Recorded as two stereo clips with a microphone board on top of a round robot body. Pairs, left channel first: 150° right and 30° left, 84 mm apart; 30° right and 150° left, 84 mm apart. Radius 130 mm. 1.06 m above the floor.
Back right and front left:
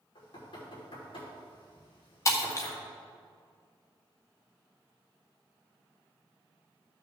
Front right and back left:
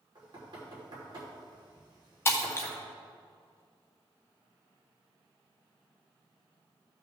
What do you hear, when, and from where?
0.1 s knocking: 175° right, 3 m
2.2 s breaking glass: 95° right, 0.6 m